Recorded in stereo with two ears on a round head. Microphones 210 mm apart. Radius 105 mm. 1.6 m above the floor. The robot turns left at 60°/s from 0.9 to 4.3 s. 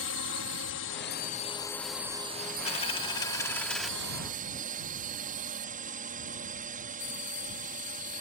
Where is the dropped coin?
25° left (ahead or behind); by 3.9 s centre (ahead or behind).